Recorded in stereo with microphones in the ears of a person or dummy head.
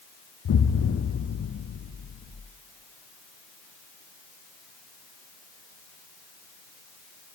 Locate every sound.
0.5 s an explosion: 80° left, 0.7 m